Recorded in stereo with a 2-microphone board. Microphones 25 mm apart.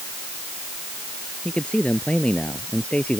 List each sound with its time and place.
1.4 s a man speaking: 45° left (ahead or behind); by 3.2 s 50° left (ahead or behind)